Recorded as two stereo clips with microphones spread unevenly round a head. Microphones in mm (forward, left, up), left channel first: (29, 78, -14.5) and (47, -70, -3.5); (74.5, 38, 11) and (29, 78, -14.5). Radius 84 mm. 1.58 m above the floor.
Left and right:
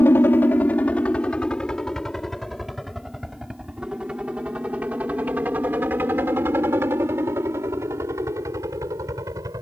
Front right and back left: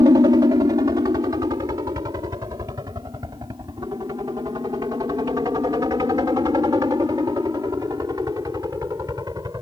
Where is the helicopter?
175° left; by 9.6 s 155° right.